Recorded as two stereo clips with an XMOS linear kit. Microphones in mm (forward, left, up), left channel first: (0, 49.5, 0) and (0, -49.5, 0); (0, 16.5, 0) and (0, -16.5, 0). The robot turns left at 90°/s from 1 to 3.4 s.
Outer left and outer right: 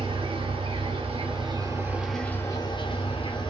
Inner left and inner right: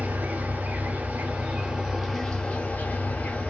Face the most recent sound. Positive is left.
turn(degrees=65)